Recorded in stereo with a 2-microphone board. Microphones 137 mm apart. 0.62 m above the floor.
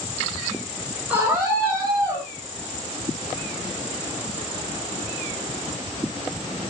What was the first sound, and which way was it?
A scream, 10° right (ahead or behind).